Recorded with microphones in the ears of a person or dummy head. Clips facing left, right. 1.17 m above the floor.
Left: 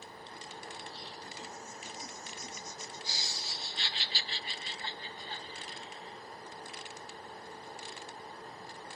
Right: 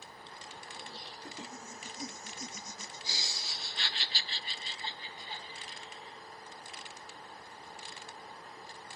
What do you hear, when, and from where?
0.8 s laughter: 55° right (ahead or behind), 2.5 m; by 6.2 s centre (ahead or behind), 1.6 m